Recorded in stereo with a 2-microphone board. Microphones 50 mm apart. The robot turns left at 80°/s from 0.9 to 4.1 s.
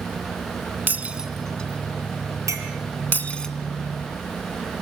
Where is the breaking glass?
35° right (ahead or behind), 2 m; by 3.5 s 10° left (ahead or behind), 2 m.